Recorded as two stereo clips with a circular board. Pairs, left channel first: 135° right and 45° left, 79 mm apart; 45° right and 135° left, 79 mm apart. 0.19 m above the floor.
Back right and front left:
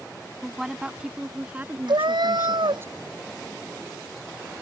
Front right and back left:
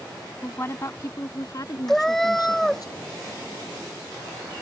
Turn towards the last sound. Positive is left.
turn(degrees=40)